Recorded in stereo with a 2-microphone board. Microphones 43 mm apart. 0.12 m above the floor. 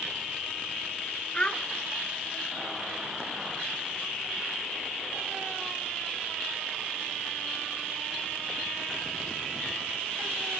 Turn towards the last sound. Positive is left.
turn(degrees=25)  # may be behind; listen again after turning